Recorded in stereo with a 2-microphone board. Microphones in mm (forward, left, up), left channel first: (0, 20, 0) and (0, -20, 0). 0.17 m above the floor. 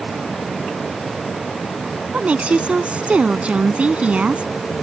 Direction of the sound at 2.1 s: 35° right (ahead or behind).